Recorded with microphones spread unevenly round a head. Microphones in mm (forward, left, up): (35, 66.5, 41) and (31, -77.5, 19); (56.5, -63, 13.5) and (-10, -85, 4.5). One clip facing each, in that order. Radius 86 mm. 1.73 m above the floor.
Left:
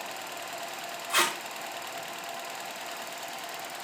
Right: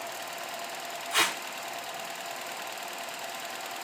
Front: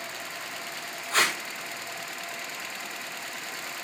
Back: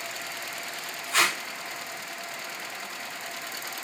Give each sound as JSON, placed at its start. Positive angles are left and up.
{"t": 1.1, "sound": "tape being pulled", "azimuth_deg": 85, "distance_m": 5.0}